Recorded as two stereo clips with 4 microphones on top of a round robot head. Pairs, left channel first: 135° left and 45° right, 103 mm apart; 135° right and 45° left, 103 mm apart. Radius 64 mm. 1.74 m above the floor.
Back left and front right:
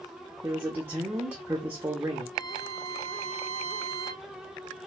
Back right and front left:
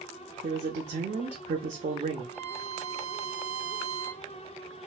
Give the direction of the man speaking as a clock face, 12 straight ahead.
11 o'clock.